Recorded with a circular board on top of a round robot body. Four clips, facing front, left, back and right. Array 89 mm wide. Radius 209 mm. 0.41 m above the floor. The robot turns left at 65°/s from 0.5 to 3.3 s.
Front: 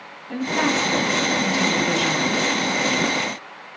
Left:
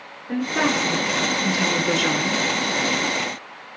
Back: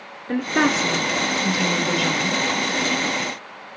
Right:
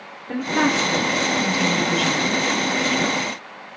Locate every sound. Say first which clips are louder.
0.3 s a woman speaking: right 1 dB, back 2 dB; 165° right, 1.8 m; by 2.4 s 70° left, 1.8 m